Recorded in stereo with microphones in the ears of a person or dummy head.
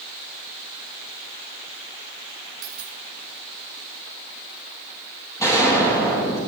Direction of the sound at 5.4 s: 15° left (ahead or behind).